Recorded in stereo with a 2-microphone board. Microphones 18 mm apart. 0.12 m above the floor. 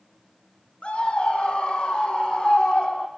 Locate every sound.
0.8 s a scream: 70° left (ahead or behind), 4 m; by 3.1 s 45° left (ahead or behind), 5 m